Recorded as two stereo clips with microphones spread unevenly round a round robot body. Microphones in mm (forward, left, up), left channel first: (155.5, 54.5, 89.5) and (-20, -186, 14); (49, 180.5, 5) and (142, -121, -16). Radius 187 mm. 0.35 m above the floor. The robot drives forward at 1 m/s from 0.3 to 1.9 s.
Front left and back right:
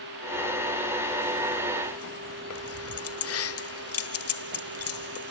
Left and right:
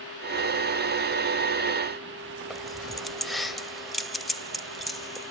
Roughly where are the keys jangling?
Ahead.